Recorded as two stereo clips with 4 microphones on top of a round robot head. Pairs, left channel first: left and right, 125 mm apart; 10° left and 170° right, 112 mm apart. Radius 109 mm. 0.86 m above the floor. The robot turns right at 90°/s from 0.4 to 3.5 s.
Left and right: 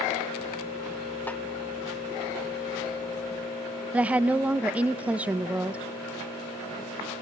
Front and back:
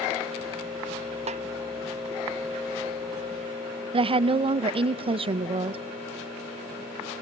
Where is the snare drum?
165° left, 0.7 m; by 1.4 s straight behind, 0.7 m.